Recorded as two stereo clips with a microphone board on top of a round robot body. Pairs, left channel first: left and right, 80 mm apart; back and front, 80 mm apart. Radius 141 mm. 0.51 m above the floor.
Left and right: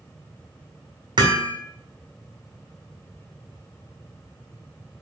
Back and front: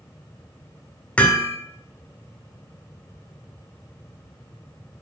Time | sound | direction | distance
1.2 | hammering | 105° right | 2 m